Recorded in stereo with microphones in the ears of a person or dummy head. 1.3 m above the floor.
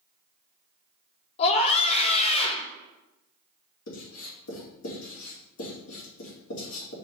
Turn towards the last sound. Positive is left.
turn(degrees=80)